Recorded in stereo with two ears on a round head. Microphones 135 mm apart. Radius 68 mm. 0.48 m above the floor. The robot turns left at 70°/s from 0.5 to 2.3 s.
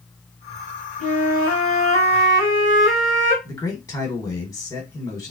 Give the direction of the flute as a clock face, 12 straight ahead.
8 o'clock.